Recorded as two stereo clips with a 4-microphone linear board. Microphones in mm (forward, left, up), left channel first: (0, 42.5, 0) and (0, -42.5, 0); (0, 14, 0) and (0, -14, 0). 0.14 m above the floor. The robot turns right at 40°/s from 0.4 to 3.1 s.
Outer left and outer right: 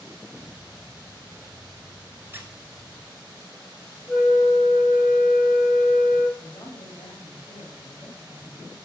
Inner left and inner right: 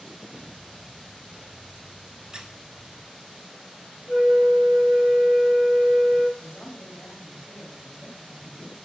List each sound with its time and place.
2.3 s a squeak: 25° right (ahead or behind), 0.9 m; by 2.5 s 35° right (ahead or behind), 0.9 m
4.1 s a flute: 10° left (ahead or behind), 1.0 m
6.4 s a man speaking: 55° left (ahead or behind), 3.5 m